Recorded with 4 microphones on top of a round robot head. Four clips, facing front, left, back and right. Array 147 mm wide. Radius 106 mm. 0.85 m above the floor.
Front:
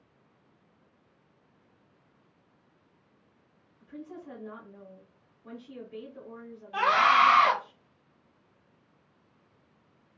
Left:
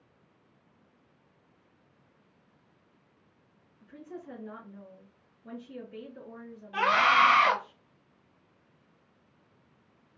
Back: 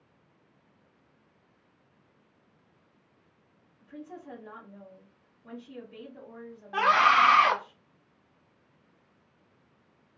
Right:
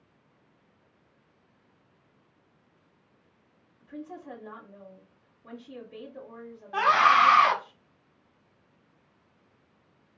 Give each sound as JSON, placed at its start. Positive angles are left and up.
{"t": 3.8, "sound": "a woman speaking", "azimuth_deg": -100, "distance_m": 2.5}
{"t": 6.7, "sound": "a scream", "azimuth_deg": -135, "distance_m": 2.0}